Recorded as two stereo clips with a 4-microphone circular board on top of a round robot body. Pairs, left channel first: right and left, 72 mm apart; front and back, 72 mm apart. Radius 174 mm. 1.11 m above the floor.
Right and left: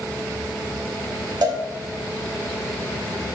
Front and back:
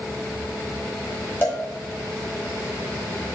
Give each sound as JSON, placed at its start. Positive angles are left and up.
{"t": 1.4, "sound": "a cowbell", "azimuth_deg": 60, "distance_m": 1.5}